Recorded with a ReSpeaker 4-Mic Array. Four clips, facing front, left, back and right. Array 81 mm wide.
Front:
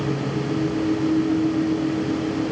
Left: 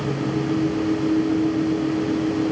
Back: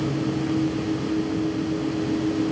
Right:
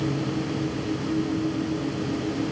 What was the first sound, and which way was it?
Only background noise.